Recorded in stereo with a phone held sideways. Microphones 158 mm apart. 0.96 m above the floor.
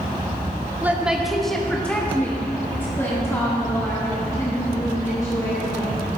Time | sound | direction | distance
0.8 | a woman speaking | 10° right (ahead or behind) | 0.8 m